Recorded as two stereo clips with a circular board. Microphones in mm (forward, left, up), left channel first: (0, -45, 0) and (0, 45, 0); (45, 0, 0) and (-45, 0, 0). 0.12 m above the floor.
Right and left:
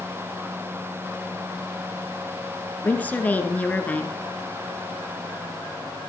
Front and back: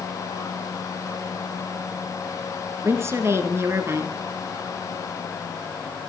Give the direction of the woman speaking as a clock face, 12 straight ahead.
5 o'clock.